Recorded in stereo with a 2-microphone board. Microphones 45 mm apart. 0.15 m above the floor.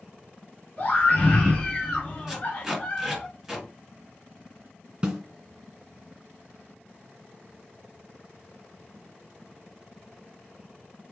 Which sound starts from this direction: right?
A snare drum, at 5.0 s.